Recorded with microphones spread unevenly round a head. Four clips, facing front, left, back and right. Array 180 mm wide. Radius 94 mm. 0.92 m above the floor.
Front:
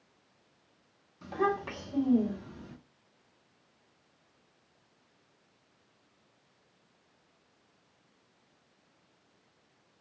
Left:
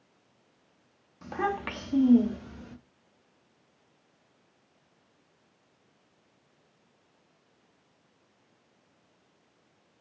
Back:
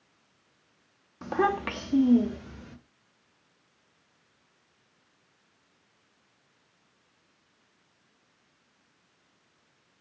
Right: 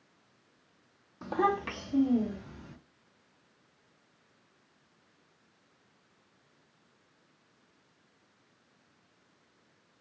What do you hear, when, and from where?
1.2 s a child speaking: 145° right, 0.7 m; by 2.8 s 140° left, 1.4 m